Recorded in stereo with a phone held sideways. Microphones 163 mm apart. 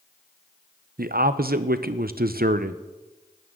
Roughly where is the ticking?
No ticking in this recording.